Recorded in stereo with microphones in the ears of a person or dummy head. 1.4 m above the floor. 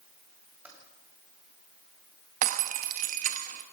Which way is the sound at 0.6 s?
10° right (ahead or behind).